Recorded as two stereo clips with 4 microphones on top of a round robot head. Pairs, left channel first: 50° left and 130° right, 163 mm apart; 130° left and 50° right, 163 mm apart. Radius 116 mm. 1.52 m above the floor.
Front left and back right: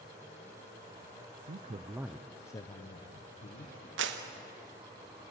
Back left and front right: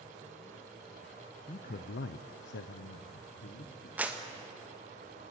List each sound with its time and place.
1.5 s a man speaking: 170° right, 0.5 m; by 3.9 s 95° left, 1.5 m
4.0 s a clap: 130° right, 1.2 m